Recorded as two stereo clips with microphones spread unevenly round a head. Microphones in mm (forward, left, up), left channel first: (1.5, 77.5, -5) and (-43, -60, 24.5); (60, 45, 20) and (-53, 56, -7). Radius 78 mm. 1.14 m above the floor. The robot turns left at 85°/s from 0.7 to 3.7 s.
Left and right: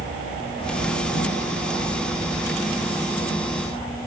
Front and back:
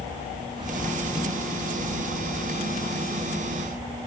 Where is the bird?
125° left; by 2.9 s 60° right.